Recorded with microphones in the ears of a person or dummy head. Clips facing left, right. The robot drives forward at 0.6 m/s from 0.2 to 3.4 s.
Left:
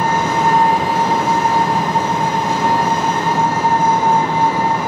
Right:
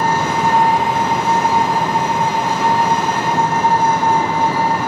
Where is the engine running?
45° left (ahead or behind), 2.5 m; by 4.9 s 25° left (ahead or behind), 4 m.